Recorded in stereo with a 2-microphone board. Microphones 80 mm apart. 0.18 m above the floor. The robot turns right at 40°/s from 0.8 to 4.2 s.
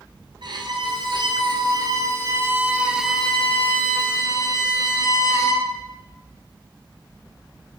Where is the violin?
95° right, 3.5 m; by 5.7 s 40° left, 3.5 m.